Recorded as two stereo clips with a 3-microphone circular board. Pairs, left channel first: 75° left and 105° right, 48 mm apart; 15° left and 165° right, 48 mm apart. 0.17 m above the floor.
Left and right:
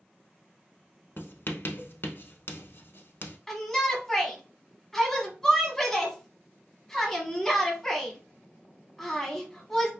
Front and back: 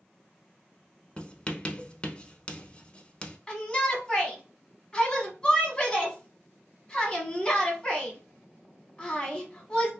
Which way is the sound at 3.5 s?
10° left.